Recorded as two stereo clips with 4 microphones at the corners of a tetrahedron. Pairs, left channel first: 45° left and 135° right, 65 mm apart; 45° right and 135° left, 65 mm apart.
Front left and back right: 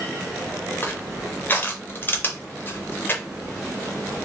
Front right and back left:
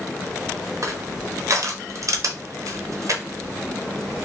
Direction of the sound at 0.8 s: 100° left.